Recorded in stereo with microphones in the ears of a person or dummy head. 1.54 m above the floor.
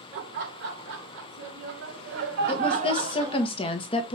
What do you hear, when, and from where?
0.1 s laughter: 60° right (ahead or behind), 3 m; by 3.5 s 15° right (ahead or behind), 1.4 m
2.5 s a woman speaking: 25° left (ahead or behind), 1.0 m